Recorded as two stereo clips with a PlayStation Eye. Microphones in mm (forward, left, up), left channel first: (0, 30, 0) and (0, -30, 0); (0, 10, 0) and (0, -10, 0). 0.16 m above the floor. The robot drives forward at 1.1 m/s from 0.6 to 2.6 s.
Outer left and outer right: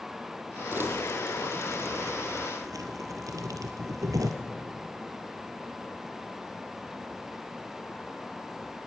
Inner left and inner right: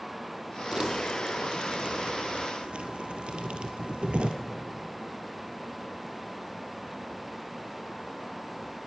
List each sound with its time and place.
0.7 s crumpling: 40° right (ahead or behind), 3 m; by 4.3 s 75° right (ahead or behind), 1.9 m